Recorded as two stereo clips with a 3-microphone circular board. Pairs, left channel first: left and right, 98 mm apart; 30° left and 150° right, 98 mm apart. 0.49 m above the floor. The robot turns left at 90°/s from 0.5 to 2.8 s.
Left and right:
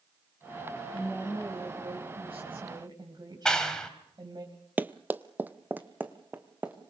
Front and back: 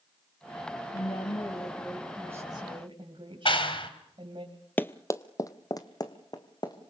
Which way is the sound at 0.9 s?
40° left.